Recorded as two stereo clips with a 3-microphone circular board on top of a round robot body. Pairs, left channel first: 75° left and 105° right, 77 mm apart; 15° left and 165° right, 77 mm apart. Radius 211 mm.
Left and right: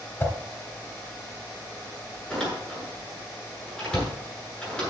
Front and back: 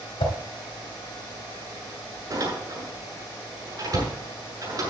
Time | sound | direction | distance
0.2 | a whoosh | 10° left | 2.5 m
2.3 | a door slam | 155° left | 8 m